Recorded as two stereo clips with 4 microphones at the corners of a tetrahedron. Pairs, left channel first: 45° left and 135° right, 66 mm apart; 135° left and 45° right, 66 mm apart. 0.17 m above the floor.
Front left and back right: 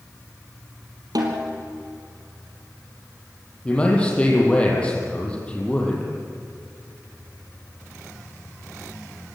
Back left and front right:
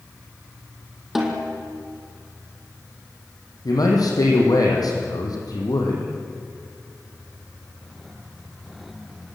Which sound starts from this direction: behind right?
A snare drum, at 1.1 s.